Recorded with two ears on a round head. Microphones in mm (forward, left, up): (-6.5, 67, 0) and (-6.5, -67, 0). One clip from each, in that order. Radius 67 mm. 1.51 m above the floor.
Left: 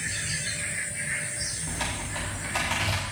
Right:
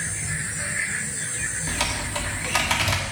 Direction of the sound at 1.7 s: 35° right (ahead or behind).